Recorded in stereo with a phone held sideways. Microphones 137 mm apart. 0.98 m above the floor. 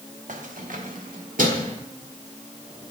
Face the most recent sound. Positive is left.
turn(degrees=-70)  # may be behind; listen again after turning